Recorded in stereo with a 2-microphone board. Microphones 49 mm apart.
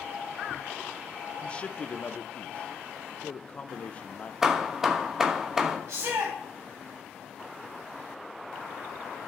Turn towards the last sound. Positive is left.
turn(degrees=-80)